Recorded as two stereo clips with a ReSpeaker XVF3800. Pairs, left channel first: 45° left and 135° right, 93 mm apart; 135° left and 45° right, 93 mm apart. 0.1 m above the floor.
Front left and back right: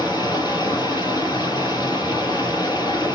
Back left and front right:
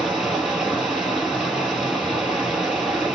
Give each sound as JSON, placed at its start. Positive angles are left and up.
{"t": 0.0, "sound": "running water", "azimuth_deg": 35, "distance_m": 2.0}